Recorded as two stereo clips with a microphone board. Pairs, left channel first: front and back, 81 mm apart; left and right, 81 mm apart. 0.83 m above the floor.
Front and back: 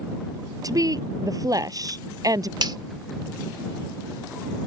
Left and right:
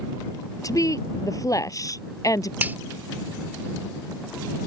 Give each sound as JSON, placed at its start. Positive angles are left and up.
{"t": 0.6, "sound": "a woman speaking", "azimuth_deg": 140}
{"t": 2.6, "sound": "a finger snap", "azimuth_deg": -155}